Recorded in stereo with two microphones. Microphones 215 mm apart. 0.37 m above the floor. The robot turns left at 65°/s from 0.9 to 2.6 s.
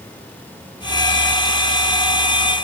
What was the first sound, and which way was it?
Only background noise.